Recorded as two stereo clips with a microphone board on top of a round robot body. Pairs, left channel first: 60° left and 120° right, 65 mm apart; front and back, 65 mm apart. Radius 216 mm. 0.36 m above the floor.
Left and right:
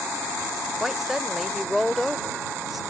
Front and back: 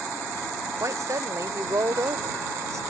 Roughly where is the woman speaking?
Behind left.